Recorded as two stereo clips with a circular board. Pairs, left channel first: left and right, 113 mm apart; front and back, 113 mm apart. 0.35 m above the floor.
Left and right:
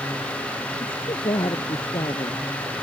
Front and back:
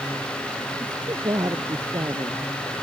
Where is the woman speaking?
130° left.